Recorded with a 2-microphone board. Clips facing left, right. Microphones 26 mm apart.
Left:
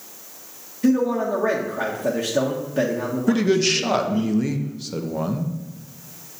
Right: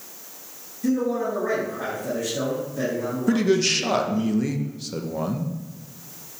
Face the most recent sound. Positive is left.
turn(degrees=5)  # may be behind; listen again after turning